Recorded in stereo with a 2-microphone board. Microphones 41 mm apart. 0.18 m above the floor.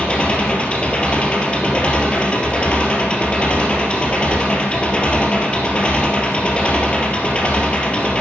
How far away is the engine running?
About 2.5 m.